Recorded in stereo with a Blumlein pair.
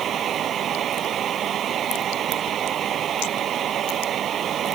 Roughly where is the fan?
Ahead right.